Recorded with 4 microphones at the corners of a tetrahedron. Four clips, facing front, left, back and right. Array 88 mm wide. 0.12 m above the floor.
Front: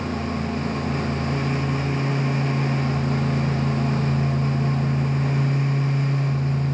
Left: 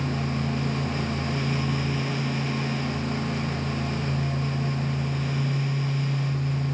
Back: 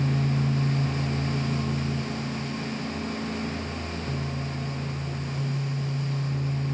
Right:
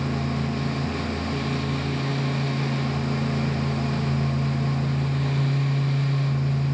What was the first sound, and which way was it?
Only background noise.